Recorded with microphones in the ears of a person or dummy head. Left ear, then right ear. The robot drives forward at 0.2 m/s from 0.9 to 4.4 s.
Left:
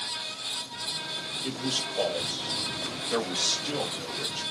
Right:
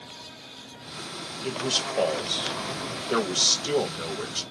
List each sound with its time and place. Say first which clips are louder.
1.4 s a man speaking: right 6 dB; 60° right (ahead or behind), 1.0 m; by 4.4 s 65° right (ahead or behind), 0.9 m